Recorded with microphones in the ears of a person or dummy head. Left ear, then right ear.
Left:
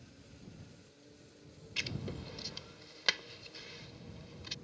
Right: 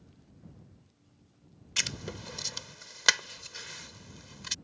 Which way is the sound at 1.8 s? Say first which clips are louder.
Right 7 dB; 50° right (ahead or behind).